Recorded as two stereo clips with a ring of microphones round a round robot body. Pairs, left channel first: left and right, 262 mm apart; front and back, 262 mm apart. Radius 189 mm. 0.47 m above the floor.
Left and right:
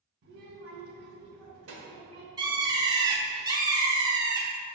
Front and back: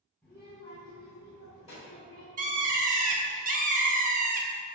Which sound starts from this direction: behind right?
A bird, at 2.4 s.